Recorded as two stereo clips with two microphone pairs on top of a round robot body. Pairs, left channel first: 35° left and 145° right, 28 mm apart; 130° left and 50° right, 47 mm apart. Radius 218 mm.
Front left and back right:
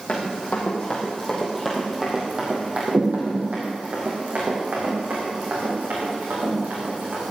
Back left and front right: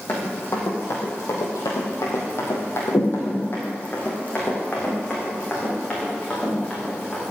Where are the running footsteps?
80° left, 3 m; by 7.2 s 150° right, 6.5 m.